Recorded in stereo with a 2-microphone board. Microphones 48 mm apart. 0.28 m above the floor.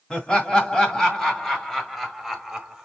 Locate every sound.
0.1 s laughter: 20° left (ahead or behind), 2 m; by 2.8 s 10° right (ahead or behind), 1.4 m